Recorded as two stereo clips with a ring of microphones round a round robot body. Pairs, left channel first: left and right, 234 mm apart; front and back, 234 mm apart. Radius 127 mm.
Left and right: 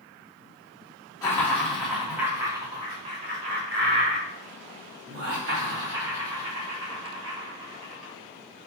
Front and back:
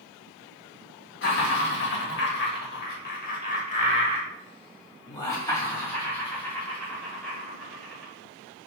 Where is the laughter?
15° left, 1.8 m; by 8.7 s 90° right, 4 m.